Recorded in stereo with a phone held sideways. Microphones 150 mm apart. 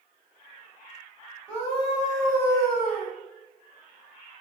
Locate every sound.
1.5 s a scream: 10° right (ahead or behind), 3.5 m